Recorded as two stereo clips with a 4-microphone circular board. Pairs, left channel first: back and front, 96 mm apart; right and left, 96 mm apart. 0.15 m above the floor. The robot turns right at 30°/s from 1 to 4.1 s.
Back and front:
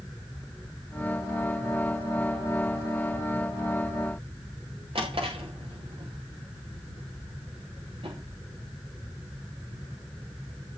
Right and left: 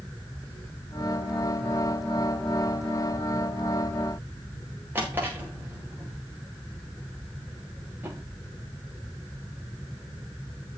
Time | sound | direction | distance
5.0 | a drawer | 20° left | 5 m